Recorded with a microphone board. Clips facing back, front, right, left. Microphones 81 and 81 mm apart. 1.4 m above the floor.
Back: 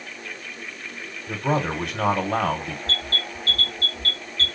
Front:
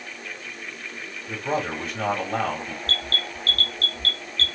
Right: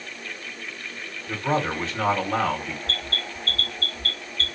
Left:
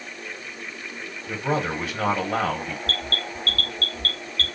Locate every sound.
1.3 s a man speaking: 170° left, 1.6 m
2.9 s an alarm: 110° left, 2 m